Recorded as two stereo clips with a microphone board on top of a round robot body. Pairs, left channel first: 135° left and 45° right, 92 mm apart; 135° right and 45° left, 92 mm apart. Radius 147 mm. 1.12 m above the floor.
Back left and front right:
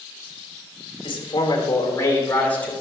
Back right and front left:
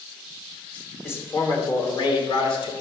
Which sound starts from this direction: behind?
A man speaking, at 1.0 s.